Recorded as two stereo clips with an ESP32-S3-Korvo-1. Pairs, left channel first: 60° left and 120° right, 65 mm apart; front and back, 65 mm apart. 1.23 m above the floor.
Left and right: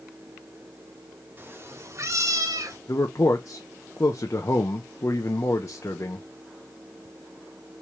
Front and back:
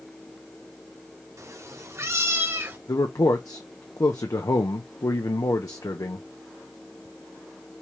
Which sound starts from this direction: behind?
A cat meowing, at 1.4 s.